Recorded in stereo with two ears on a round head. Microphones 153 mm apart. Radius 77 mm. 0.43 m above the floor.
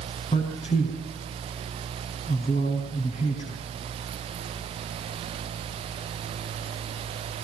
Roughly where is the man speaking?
Left.